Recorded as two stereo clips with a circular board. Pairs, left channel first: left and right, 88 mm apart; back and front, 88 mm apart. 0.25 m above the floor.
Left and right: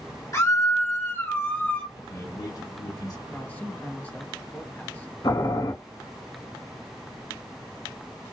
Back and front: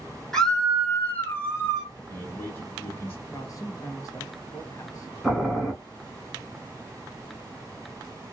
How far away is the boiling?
About 1.7 m.